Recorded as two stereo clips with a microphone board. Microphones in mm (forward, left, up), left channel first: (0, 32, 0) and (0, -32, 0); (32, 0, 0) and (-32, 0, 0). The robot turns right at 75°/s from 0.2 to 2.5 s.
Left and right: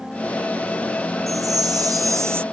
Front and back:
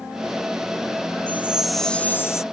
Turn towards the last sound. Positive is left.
turn(degrees=-30)